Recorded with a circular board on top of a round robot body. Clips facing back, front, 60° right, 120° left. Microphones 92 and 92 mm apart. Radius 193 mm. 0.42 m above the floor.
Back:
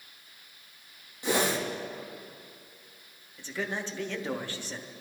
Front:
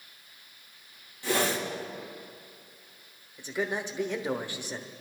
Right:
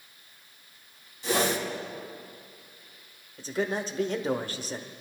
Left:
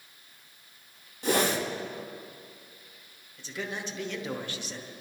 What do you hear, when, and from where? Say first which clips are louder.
1.2 s a whoosh: back 1 dB, left 1 dB; 115° left, 2.5 m
3.4 s a man speaking: front 3 dB, right 7 dB; 65° right, 1.3 m